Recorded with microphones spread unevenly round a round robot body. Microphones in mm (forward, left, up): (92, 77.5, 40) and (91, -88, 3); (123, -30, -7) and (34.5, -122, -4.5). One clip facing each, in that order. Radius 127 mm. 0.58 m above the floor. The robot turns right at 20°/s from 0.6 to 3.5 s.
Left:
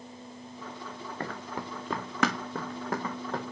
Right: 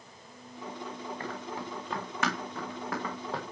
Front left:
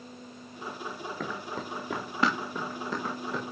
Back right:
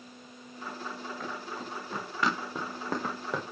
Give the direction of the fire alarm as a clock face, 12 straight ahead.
I don't hear a fire alarm.